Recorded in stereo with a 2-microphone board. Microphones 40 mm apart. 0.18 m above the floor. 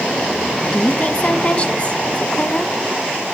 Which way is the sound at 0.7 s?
35° left (ahead or behind).